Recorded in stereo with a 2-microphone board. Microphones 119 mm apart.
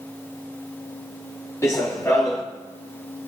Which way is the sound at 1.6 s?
25° left (ahead or behind).